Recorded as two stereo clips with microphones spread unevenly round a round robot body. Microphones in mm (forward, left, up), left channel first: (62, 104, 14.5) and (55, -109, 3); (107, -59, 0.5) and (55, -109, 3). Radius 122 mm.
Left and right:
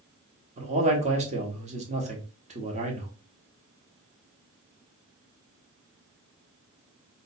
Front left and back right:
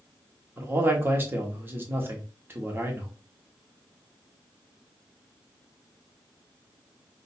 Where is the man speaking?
95° right, 1.1 m.